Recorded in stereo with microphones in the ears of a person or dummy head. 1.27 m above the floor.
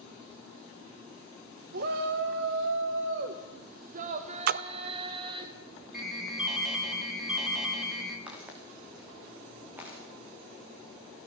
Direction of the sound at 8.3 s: 10° right (ahead or behind).